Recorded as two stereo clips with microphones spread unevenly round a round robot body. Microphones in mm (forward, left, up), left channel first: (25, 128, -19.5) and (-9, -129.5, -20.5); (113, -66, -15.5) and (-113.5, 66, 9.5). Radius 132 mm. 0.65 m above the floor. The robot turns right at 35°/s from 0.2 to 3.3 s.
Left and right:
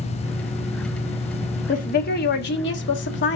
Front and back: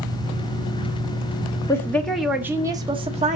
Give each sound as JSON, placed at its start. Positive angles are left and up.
{"t": 1.7, "sound": "a woman speaking", "azimuth_deg": 35, "distance_m": 1.3}